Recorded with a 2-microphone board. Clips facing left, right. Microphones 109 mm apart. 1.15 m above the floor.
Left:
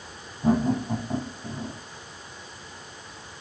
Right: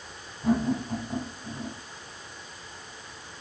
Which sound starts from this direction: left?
Laughter, at 0.4 s.